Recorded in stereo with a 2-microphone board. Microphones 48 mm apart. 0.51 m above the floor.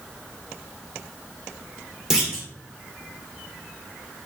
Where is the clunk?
10° right (ahead or behind), 1.0 m.